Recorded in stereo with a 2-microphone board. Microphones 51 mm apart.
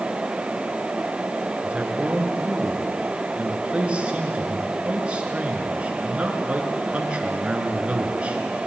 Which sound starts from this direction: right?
A man speaking, at 1.6 s.